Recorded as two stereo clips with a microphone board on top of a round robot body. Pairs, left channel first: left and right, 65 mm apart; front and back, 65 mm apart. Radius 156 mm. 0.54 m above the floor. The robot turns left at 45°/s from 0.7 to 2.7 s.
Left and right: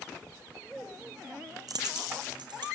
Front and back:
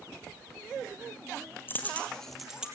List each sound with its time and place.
1.7 s a dropped coin: 60° right, 5 m; by 2.7 s 100° right, 5 m